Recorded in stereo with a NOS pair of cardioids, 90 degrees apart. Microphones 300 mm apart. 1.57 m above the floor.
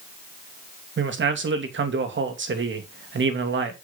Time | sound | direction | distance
1.0 | a man speaking | 40° right | 2.5 m